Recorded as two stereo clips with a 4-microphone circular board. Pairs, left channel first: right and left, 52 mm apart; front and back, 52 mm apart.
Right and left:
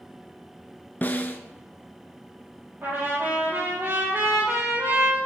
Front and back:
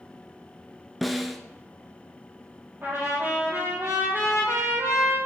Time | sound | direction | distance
1.0 | a snare drum | 90° right | 0.5 m
2.8 | a trumpet | 135° left | 2 m